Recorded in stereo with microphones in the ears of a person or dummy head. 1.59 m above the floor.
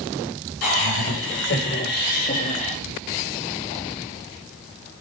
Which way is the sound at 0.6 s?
80° left.